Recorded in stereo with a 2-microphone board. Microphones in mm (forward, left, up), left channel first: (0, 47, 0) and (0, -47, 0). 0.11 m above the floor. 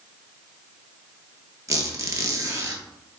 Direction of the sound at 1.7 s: 35° right (ahead or behind).